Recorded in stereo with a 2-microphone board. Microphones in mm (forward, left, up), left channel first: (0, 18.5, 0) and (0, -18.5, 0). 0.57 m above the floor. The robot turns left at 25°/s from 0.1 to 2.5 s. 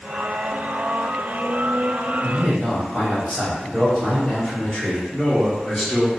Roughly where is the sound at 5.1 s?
Centre.